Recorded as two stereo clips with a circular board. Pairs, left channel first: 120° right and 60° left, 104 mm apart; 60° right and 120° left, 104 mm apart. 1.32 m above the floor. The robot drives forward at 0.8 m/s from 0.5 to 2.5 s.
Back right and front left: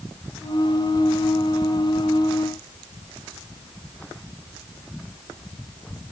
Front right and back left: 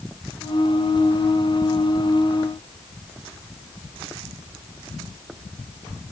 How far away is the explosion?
No explosion in this recording.